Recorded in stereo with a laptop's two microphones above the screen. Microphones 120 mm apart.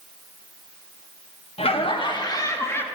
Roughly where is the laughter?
Left.